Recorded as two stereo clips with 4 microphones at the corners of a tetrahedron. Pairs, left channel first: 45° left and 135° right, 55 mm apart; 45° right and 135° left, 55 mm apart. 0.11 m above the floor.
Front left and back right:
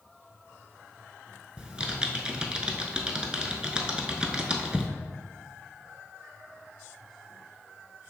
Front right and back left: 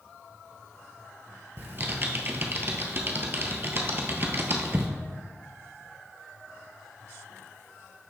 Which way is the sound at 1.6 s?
160° left.